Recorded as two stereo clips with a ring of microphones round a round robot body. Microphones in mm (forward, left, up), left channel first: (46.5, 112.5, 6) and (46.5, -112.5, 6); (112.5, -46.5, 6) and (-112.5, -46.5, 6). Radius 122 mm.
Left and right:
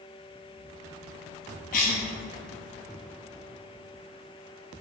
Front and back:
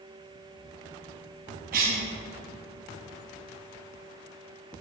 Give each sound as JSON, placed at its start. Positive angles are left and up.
{"t": 1.7, "sound": "a cough", "azimuth_deg": 135, "distance_m": 0.6}